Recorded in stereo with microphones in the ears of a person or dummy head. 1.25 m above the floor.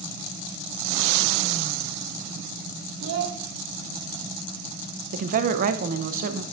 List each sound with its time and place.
3.0 s a child speaking: 70° right (ahead or behind), 1.0 m
5.1 s a woman speaking: 45° right (ahead or behind), 0.7 m